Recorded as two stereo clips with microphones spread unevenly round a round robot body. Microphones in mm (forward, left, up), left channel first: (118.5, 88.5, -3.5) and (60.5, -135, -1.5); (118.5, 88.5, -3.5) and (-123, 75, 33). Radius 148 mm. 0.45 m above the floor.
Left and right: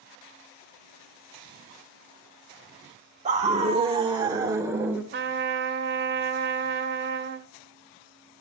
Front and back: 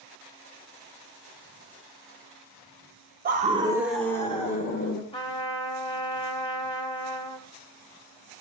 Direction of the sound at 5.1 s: 65° right.